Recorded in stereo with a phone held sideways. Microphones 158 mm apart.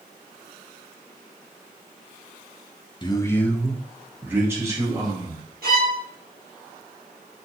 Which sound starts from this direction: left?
A man speaking, at 3.0 s.